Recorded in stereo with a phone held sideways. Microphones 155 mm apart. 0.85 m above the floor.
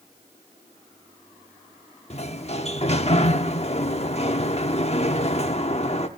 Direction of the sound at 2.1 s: 45° left (ahead or behind).